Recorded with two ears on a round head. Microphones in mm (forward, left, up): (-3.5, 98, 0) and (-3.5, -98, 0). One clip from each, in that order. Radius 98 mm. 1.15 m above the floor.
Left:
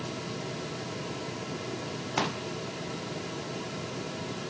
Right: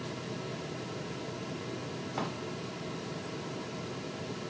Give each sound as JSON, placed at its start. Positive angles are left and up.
{"t": 2.2, "sound": "a pop", "side_deg": 80, "distance_m": 0.7}